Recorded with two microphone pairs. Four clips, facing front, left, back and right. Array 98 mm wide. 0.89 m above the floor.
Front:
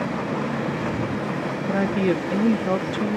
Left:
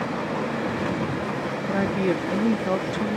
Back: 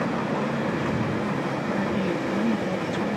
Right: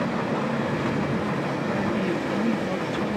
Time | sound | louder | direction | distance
1.7 | a woman speaking | left 5 dB, front 7 dB | 30° left | ?